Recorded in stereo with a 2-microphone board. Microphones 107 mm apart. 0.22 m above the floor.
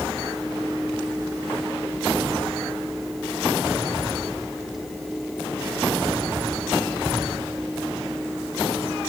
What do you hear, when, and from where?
Only background noise.